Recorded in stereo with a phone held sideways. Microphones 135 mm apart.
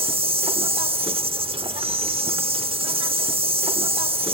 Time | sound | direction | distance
0.0 | an insect | 45° right (ahead or behind) | 0.9 m